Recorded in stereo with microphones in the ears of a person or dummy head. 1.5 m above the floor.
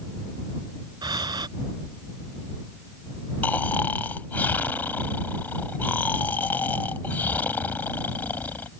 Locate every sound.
1.0 s breathing: 25° right (ahead or behind)
3.4 s snoring: 10° left (ahead or behind)